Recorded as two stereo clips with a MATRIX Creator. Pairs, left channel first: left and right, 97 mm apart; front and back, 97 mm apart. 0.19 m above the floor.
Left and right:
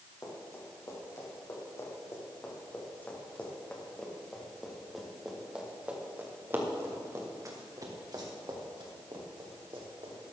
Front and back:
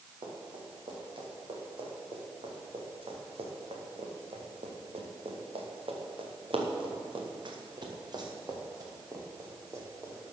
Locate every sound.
0.2 s running footsteps: 145° left, 5 m; by 10.3 s 115° right, 4 m